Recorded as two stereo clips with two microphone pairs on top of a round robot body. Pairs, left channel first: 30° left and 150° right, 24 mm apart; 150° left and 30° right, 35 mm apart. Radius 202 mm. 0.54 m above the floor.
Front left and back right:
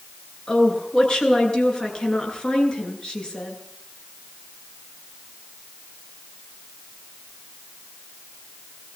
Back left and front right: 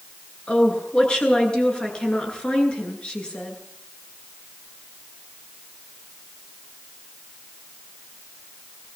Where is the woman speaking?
90° left, 9.5 m.